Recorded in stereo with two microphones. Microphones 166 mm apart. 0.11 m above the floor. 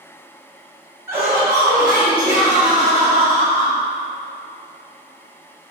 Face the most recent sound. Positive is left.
turn(degrees=-20)  # may be behind; listen again after turning